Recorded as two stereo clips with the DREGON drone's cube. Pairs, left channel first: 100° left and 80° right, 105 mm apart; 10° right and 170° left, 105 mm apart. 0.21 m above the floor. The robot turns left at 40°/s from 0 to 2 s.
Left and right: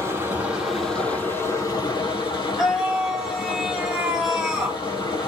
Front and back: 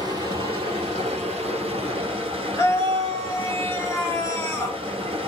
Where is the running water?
135° right, 1.2 m; by 5.3 s 145° left, 1.2 m.